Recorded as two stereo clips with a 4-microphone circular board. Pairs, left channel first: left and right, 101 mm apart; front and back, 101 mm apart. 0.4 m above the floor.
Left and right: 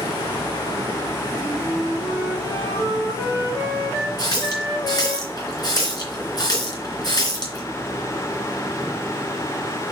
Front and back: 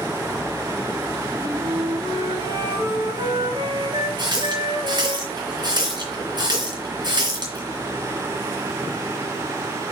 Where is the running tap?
140° left, 3.5 m.